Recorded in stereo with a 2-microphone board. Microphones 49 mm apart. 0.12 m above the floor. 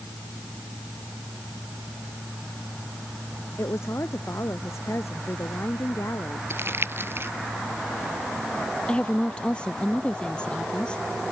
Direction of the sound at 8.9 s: 20° left (ahead or behind).